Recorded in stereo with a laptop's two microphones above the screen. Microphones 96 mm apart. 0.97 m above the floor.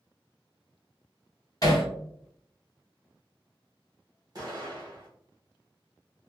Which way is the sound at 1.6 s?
40° left (ahead or behind).